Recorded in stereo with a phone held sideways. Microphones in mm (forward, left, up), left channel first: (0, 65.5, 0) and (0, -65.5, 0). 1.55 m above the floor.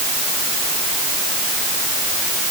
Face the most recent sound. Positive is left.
No sound to turn to.